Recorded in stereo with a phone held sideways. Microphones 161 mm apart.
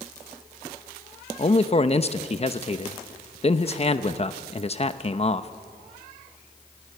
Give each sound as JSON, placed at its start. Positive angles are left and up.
{"t": 1.4, "sound": "a man speaking", "side_deg": 40, "distance_m": 0.8}